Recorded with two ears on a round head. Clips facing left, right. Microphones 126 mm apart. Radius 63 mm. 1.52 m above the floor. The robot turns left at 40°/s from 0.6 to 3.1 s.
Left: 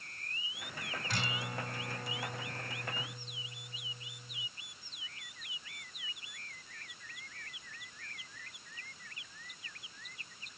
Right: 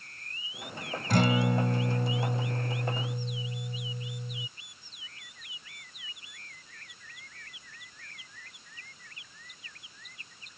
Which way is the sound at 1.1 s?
40° right.